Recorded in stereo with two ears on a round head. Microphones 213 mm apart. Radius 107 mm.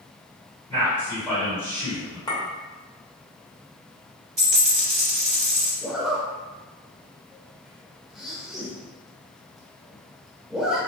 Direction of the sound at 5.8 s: Centre (ahead or behind).